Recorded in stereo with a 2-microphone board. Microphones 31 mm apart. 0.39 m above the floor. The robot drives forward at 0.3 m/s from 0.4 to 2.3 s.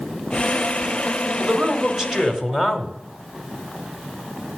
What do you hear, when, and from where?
1.4 s a man speaking: 15° right (ahead or behind), 1.6 m; by 2.9 s 10° right (ahead or behind), 1.8 m